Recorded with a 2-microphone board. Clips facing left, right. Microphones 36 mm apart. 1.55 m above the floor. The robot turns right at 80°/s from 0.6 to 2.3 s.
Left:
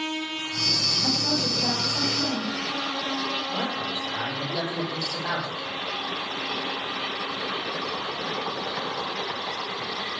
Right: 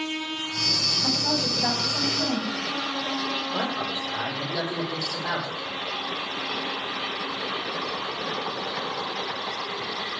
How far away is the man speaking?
About 5 m.